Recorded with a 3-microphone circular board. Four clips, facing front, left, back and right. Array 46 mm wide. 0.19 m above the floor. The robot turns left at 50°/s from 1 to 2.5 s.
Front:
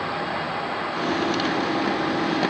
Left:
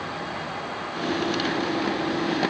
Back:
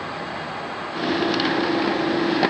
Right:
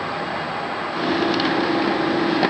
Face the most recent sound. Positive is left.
No sound to turn to.